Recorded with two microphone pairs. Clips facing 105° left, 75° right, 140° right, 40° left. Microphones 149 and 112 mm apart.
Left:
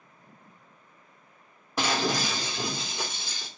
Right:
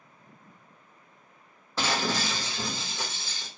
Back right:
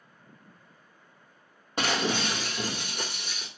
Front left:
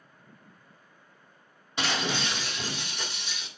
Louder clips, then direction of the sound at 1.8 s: Left 2 dB, back right 2 dB; straight behind.